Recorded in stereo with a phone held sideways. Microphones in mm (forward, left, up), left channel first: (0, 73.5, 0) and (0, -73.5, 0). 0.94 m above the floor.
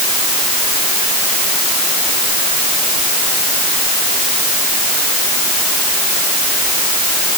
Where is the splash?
I don't hear a splash.